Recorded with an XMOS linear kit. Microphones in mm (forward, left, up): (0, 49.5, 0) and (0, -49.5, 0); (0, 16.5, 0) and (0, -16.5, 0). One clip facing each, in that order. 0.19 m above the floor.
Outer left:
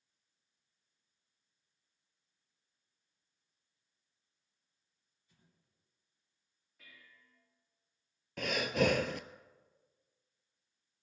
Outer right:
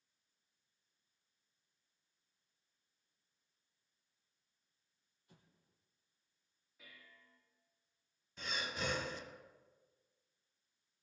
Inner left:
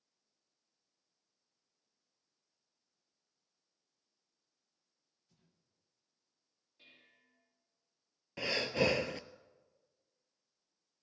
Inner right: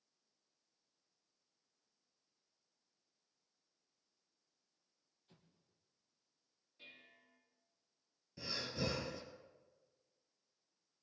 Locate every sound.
5.3 s an explosion: 65° right (ahead or behind), 3.5 m
6.8 s dishes clattering: 5° right (ahead or behind), 6.5 m
8.4 s breathing: 80° left, 0.7 m